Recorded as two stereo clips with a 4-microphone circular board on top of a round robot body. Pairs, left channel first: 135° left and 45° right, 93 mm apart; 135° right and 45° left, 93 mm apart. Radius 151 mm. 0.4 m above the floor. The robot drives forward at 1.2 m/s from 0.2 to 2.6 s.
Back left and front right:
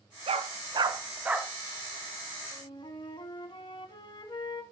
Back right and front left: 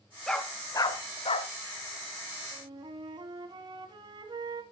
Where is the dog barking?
50° right, 1.2 m; by 1.5 s 130° right, 1.2 m.